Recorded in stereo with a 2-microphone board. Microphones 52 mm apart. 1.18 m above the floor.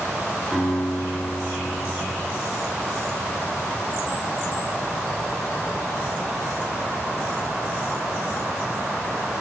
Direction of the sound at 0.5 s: 5° right (ahead or behind).